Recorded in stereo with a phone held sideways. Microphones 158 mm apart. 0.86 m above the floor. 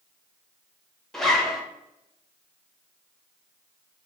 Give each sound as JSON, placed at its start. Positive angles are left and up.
{"t": 1.1, "sound": "a zipper", "side_deg": 0, "distance_m": 0.7}